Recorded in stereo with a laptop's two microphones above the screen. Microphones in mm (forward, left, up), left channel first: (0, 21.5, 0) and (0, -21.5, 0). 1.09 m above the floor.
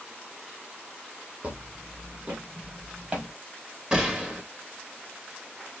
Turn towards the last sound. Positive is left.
turn(degrees=-25)  # may be behind; listen again after turning